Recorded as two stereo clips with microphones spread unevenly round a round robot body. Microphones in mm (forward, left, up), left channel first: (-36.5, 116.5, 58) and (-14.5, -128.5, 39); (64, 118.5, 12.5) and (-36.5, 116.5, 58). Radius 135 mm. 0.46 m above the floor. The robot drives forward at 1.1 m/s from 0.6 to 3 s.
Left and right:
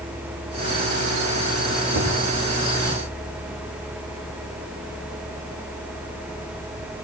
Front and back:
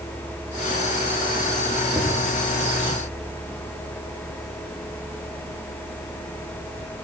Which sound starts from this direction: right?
Knocking, at 1.9 s.